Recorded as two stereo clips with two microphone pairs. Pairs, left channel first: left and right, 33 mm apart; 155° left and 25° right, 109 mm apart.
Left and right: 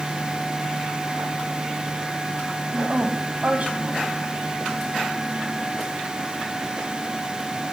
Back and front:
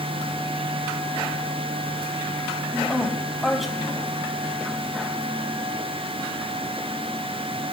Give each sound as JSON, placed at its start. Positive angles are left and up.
{"t": 2.7, "sound": "a woman speaking", "azimuth_deg": -115, "distance_m": 2.0}